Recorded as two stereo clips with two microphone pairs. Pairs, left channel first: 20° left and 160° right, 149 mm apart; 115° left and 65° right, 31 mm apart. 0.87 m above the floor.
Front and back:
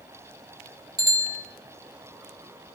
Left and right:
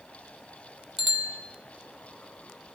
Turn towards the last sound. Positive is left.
turn(degrees=-150)